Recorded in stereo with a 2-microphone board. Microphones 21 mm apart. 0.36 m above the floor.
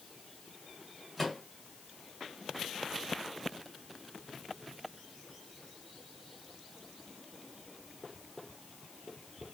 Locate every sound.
1.2 s a microwave: 10° right (ahead or behind), 1.3 m